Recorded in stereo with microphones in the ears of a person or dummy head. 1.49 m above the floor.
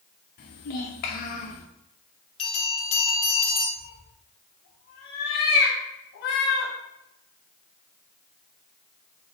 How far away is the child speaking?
About 0.9 m.